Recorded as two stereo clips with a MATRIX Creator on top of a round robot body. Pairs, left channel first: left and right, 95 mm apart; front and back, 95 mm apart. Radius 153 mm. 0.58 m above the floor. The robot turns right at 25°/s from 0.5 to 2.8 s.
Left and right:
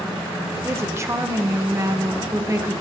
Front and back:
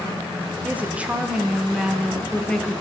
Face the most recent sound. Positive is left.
turn(degrees=-70)